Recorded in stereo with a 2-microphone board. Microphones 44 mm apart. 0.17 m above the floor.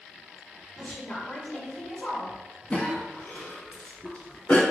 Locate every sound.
0.8 s a woman speaking: 15° left (ahead or behind), 1.2 m
2.7 s a cough: 30° left (ahead or behind), 1.3 m